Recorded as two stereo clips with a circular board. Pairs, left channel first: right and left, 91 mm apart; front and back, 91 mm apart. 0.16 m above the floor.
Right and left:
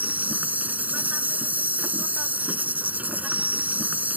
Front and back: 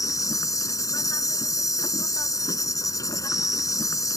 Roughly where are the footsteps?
No footsteps in this recording.